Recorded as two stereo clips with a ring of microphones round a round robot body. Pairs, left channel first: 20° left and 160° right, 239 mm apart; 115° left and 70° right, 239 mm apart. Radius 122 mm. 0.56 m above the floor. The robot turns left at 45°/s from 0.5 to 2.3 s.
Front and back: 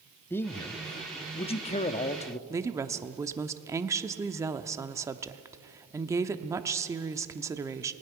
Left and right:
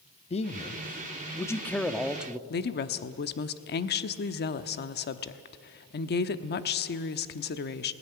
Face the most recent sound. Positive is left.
turn(degrees=130)